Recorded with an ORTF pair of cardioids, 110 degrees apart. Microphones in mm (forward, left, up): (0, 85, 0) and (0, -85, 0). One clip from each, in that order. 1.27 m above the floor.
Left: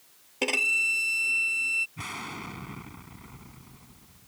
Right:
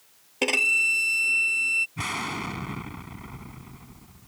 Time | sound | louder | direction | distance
0.4 | a violin | right 3 dB | 20° right | ?
2.0 | an explosion | right 7 dB | 40° right | ?